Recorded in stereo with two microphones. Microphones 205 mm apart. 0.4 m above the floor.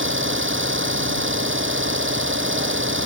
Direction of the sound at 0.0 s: 75° right (ahead or behind).